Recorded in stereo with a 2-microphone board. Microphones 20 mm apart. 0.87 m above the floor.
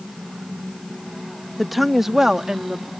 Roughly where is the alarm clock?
No alarm clock in this recording.